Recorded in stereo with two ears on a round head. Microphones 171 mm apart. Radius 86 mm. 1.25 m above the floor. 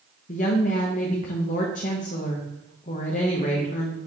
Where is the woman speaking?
45° left (ahead or behind), 1.0 m.